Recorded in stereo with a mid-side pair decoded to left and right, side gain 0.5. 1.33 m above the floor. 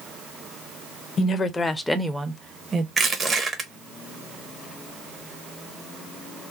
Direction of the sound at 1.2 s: 50° left.